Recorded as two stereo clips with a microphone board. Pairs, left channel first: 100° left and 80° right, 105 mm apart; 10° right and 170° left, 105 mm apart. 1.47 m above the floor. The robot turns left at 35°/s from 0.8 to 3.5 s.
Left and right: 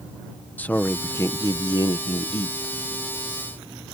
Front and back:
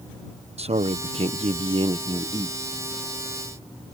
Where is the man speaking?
175° left; by 2.6 s 110° left.